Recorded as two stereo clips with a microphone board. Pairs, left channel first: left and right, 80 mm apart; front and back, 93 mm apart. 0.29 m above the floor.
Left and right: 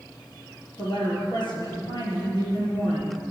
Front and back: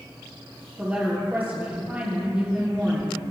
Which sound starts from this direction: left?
A woman speaking, at 0.8 s.